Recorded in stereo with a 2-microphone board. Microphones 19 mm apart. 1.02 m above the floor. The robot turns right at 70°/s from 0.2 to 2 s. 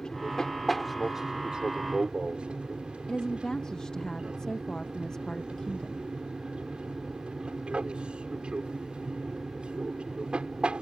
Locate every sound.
0.0 s an aircraft: 130° left; by 10.8 s 105° right
3.1 s a woman speaking: 40° left (ahead or behind)